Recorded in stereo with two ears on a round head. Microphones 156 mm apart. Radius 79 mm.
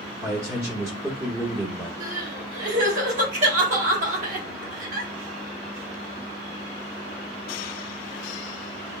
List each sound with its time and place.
0.2 s a man speaking: 15° right (ahead or behind), 1.0 m
2.0 s crying: 45° right (ahead or behind), 1.2 m